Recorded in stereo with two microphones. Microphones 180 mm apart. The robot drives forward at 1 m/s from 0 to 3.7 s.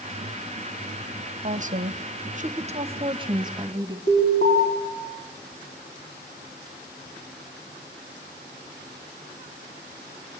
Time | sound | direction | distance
1.4 | a woman speaking | 40° right (ahead or behind) | 1.1 m
4.1 | an alarm | 50° left (ahead or behind) | 6.5 m